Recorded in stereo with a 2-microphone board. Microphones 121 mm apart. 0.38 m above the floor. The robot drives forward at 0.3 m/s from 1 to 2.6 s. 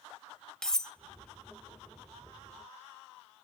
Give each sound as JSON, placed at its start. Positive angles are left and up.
{"t": 0.6, "sound": "cutlery clinking", "side_deg": 5, "distance_m": 0.7}